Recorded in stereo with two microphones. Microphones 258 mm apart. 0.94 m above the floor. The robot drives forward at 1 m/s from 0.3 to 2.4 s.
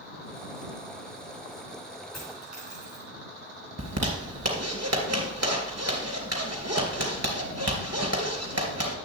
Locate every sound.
2.1 s a dropped coin: 70° left (ahead or behind), 5.5 m
3.8 s a zipper: 75° right (ahead or behind), 2.5 m